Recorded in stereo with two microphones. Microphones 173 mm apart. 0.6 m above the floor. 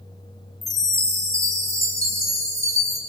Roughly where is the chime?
Centre.